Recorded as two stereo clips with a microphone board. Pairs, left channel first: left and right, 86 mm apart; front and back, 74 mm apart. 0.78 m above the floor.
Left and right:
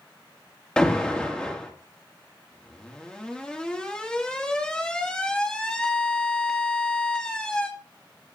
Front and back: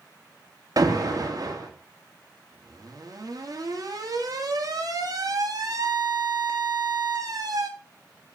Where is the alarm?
170° left, 2.5 m.